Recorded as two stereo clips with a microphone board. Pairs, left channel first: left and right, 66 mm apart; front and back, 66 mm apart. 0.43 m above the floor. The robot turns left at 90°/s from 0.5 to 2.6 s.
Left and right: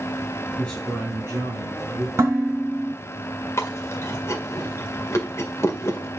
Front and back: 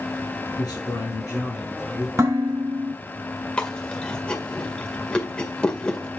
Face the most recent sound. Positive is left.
turn(degrees=70)